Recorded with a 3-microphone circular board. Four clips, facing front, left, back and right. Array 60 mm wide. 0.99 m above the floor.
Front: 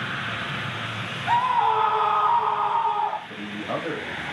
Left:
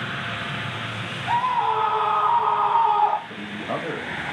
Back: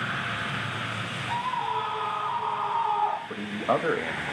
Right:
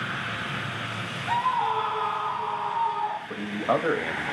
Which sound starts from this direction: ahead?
A scream, at 1.3 s.